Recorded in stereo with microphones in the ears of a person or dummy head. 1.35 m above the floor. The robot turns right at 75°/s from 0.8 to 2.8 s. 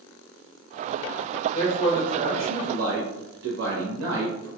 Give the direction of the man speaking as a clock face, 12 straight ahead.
7 o'clock.